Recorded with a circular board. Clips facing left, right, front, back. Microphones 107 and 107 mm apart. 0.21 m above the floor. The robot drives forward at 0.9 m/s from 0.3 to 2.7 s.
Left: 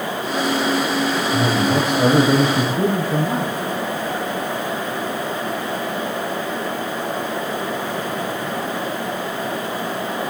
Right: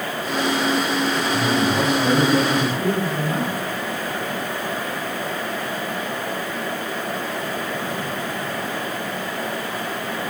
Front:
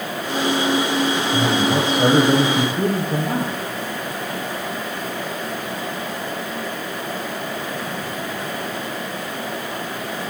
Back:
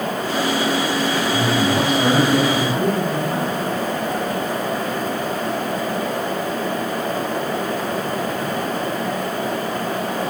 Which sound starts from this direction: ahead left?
A man speaking, at 1.3 s.